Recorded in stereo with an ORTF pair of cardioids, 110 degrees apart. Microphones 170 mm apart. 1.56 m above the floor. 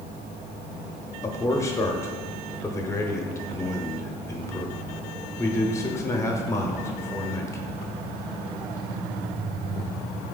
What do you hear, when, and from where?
1.2 s a man speaking: 15° left, 0.7 m